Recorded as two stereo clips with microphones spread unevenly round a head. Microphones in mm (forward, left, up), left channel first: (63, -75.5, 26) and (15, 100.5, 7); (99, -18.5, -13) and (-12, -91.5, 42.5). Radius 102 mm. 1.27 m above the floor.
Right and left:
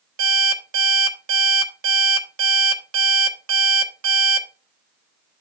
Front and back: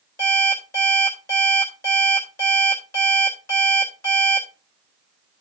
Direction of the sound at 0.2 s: 110° left.